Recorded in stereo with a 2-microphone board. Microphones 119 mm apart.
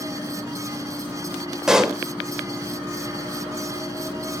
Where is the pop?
5° right (ahead or behind), 1.2 m.